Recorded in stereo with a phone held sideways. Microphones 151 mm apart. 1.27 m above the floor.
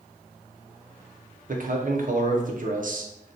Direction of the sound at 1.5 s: 60° right (ahead or behind).